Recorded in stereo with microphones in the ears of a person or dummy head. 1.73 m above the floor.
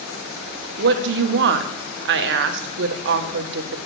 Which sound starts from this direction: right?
A woman speaking, at 0.8 s.